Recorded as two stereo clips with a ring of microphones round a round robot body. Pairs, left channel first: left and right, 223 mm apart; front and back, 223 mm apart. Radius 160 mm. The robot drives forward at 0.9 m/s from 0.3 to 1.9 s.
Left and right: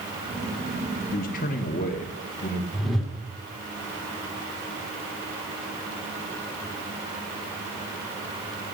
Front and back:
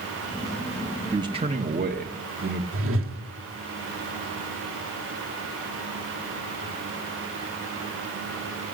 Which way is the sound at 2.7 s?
Straight behind.